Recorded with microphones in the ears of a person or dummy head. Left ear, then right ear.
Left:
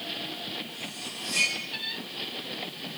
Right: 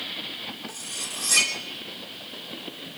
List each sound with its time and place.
0.7 s cutlery clinking: 55° right (ahead or behind), 1.6 m